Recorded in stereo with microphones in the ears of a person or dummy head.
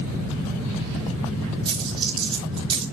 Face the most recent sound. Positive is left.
turn(degrees=-30)  # may be behind; listen again after turning